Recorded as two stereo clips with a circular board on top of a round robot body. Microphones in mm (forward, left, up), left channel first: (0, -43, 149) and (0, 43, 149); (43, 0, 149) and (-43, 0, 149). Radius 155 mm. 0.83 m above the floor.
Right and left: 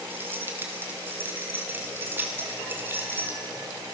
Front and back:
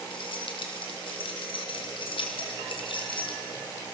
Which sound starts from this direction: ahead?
Keys jangling, at 0.1 s.